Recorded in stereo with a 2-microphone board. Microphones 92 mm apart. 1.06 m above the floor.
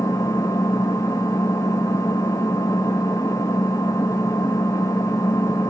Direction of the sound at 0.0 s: 35° left (ahead or behind).